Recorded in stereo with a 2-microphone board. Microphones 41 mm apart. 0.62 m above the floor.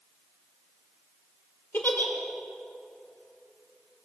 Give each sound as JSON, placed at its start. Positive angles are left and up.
{"t": 1.7, "sound": "a giggle", "side_deg": 55, "distance_m": 1.7}